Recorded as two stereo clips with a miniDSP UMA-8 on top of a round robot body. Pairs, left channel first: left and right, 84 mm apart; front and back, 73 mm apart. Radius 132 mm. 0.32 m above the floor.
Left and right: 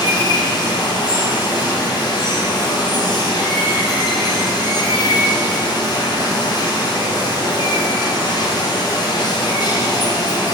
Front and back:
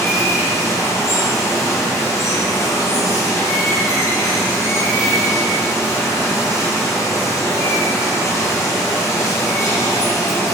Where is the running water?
50° left, 1.0 m.